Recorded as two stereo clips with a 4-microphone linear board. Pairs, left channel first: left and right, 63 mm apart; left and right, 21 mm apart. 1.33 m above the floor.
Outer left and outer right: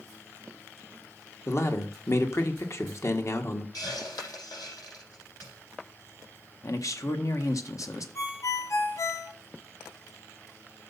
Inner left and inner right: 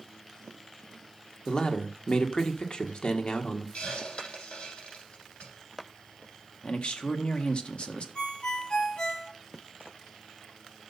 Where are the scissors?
No scissors in this recording.